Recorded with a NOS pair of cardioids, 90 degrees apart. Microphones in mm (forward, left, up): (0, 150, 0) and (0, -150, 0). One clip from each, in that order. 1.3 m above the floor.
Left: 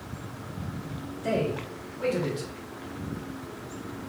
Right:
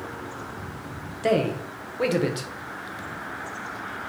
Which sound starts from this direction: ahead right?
A man speaking, at 1.2 s.